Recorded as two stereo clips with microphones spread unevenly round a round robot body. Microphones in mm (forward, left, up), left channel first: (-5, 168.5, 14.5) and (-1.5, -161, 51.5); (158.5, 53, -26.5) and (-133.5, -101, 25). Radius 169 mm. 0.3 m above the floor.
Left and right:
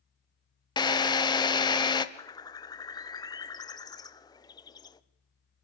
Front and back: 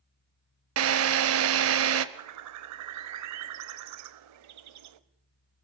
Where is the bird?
165° left, 0.9 m.